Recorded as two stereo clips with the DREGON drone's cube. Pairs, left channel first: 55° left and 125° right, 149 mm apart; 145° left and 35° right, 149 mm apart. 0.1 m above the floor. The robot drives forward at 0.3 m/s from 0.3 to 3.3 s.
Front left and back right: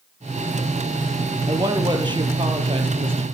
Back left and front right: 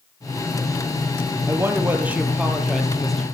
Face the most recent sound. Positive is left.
turn(degrees=-130)